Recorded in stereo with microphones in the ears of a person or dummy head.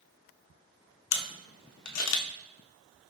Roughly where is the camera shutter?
Left.